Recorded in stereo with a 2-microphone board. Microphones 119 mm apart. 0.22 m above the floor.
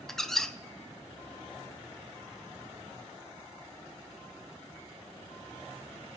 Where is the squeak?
5° left (ahead or behind), 0.8 m.